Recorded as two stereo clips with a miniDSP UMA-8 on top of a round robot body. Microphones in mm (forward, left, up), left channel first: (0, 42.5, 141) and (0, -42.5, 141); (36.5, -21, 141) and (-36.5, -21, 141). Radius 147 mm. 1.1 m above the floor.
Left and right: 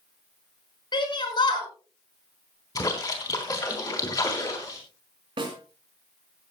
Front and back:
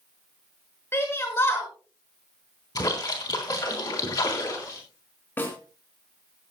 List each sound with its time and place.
0.9 s a shout: 60° left, 6 m
2.8 s a splash: 40° left, 3.5 m
5.4 s a snare drum: 65° right, 4 m